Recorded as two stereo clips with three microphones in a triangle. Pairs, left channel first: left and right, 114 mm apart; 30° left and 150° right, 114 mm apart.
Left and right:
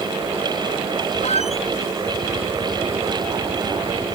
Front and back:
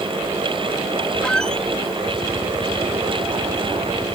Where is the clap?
I don't hear a clap.